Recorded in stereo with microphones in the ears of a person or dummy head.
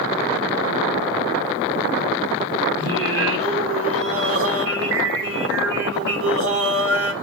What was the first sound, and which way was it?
Singing, 75° right (ahead or behind).